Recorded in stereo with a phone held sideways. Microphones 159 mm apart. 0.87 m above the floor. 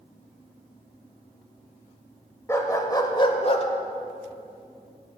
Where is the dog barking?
15° left (ahead or behind), 1.4 m; by 3.7 s 40° left (ahead or behind), 1.1 m.